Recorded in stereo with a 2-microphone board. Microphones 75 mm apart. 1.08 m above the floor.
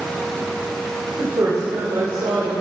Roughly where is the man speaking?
Right.